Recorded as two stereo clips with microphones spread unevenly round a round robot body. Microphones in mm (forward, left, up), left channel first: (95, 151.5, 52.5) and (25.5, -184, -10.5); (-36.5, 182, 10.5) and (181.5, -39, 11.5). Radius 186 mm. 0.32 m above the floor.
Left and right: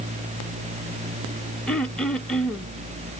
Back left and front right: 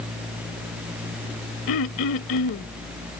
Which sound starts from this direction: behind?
Throat clearing, at 1.7 s.